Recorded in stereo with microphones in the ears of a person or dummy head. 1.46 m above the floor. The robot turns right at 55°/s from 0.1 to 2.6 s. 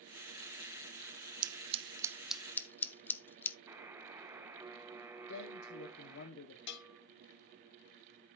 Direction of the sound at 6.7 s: 65° left (ahead or behind).